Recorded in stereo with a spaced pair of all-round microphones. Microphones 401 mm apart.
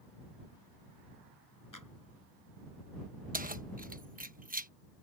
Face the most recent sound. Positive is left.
turn(degrees=-20)  # may be behind; listen again after turning